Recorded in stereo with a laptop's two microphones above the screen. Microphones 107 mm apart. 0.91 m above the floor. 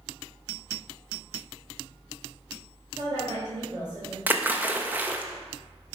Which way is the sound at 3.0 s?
40° right (ahead or behind).